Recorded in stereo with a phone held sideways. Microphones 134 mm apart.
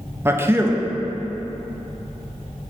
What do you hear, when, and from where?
0.2 s a man speaking: 15° right (ahead or behind), 0.8 m